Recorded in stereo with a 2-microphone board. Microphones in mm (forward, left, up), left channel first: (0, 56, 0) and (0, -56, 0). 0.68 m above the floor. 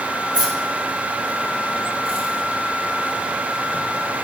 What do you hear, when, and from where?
0.3 s keys jangling: 45° right (ahead or behind), 7 m; by 4.2 s 80° right, 4.5 m